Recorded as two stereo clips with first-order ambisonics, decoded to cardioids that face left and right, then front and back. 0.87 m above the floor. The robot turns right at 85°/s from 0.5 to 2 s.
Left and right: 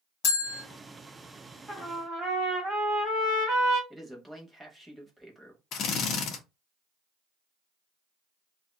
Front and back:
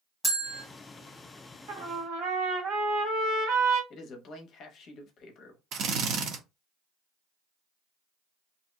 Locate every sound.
0.2 s a bell: 90° left, 0.9 m; by 0.6 s 100° left, 0.9 m
1.7 s a trumpet: 175° right, 1.4 m; by 3.8 s 150° right, 1.4 m
3.9 s a man speaking: straight ahead, 0.7 m
5.7 s a drill: 135° left, 0.6 m